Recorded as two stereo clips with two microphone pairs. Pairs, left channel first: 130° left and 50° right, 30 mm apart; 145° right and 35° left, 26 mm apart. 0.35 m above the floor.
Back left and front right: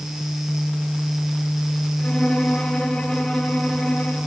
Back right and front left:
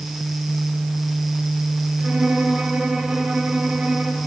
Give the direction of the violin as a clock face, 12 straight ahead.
10 o'clock.